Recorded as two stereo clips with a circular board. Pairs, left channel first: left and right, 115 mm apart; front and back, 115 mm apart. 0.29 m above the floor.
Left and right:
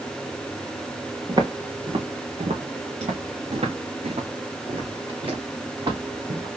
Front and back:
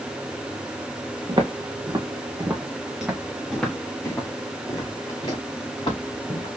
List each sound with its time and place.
1.3 s footsteps: 135° right, 1.5 m; by 6.5 s 45° right, 2.5 m